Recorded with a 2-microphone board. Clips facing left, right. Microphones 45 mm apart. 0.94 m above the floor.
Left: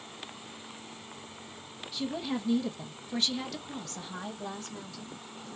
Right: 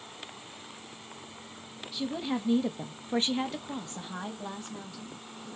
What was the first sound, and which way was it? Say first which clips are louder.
A woman speaking: right 1 dB; 10° right (ahead or behind).